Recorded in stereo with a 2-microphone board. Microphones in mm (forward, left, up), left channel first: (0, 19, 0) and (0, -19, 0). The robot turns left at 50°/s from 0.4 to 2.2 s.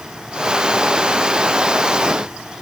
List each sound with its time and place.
Only background noise.